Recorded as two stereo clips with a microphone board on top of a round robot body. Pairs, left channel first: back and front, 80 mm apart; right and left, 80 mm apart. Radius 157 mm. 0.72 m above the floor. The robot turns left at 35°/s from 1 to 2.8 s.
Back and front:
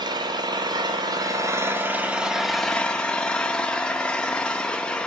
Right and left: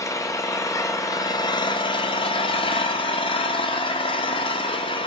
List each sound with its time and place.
0.0 s an engine running: 35° right, 0.9 m; by 5.1 s 100° right, 0.9 m